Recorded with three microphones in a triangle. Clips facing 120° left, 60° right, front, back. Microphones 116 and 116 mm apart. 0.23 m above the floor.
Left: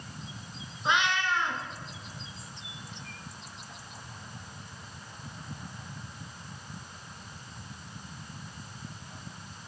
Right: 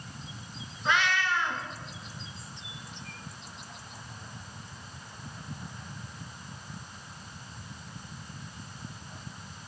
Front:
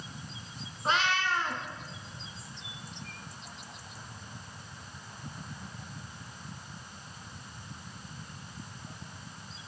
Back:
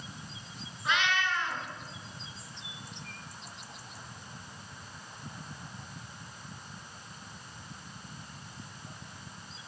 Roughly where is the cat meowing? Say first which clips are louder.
Even, front 2 dB; ahead left.